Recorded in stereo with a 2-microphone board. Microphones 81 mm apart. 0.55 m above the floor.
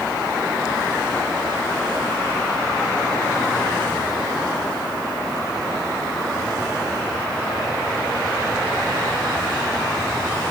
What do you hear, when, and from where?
Only background noise.